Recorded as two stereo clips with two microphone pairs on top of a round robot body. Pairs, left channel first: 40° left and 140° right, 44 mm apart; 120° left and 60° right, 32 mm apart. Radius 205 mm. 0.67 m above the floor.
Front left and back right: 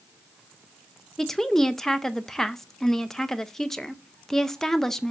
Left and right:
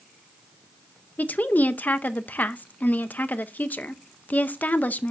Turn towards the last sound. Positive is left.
turn(degrees=125)